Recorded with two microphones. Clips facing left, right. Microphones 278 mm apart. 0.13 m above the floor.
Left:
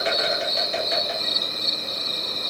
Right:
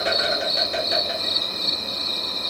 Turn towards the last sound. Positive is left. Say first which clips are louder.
# right 1 dB
turn(degrees=-50)  # may be behind; listen again after turning